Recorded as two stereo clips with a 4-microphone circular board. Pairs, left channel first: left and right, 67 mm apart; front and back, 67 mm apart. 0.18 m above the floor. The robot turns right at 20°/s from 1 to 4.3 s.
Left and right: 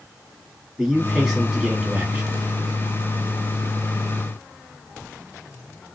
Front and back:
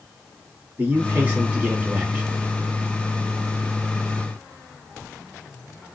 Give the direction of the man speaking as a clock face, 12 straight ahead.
6 o'clock.